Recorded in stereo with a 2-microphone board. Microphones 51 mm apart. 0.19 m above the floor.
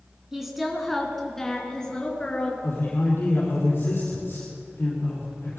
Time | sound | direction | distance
0.3 | a woman speaking | 10° right (ahead or behind) | 2.5 m
2.6 | a man speaking | 50° left (ahead or behind) | 5 m